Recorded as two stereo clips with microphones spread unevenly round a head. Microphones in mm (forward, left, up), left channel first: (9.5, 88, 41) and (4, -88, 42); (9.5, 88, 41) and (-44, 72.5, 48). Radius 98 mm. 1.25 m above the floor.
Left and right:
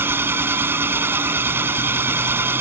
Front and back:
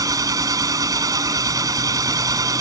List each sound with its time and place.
0.0 s an engine running: 170° right